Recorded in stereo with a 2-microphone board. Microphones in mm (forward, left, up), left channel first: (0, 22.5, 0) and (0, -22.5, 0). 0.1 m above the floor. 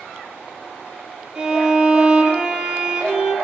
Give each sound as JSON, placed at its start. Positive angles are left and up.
{"t": 1.4, "sound": "a violin", "side_deg": -15, "distance_m": 0.6}